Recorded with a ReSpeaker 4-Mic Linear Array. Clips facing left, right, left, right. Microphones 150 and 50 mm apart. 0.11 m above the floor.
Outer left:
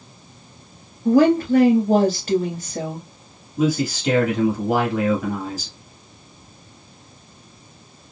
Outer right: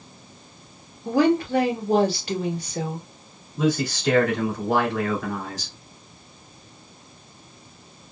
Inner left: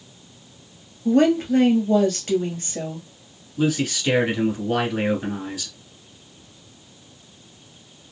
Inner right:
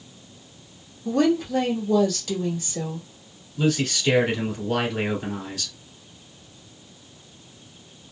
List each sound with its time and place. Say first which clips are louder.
1.1 s a woman speaking: outer left 5 dB, inner left 4 dB; 45° left (ahead or behind), 1.6 m
3.6 s a man speaking: outer left 2 dB, inner left 1 dB; 15° left (ahead or behind), 1.3 m